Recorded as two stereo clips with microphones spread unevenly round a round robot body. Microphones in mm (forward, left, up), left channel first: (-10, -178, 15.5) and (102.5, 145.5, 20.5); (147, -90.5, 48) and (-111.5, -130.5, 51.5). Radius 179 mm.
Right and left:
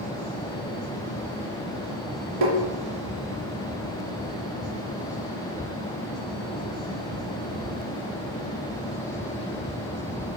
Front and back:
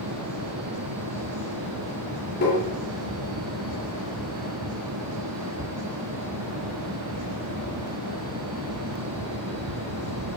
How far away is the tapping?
About 3 m.